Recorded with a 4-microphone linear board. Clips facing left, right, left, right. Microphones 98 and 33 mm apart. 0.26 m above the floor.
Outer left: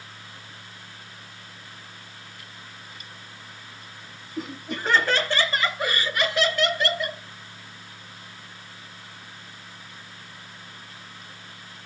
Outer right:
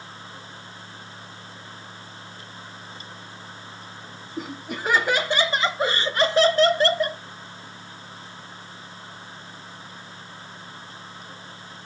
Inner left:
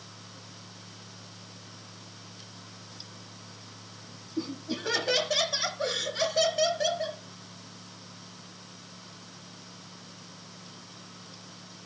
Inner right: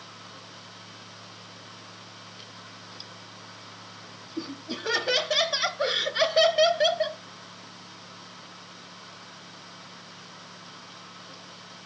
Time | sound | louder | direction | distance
4.4 | laughter | even, inner left 1 dB | centre (ahead or behind) | 1.5 m